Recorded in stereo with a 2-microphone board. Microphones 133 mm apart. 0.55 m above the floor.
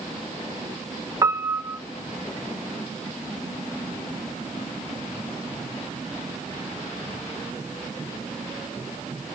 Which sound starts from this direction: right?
A piano, at 1.2 s.